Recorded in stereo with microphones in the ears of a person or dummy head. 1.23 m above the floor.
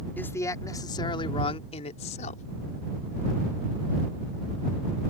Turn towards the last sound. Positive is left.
turn(degrees=45)  # may be behind; listen again after turning